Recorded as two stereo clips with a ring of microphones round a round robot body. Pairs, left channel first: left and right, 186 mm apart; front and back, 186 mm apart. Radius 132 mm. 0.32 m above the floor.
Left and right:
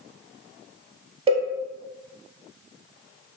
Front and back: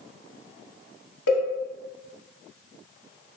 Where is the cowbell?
25° right, 0.7 m.